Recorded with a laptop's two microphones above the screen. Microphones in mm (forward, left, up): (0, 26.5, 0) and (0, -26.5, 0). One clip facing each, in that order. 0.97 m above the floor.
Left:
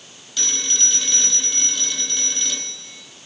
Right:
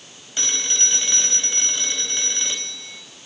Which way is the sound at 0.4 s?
30° right (ahead or behind).